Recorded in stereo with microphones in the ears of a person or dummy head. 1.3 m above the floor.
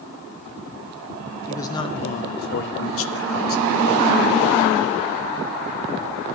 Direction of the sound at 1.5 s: 15° left (ahead or behind).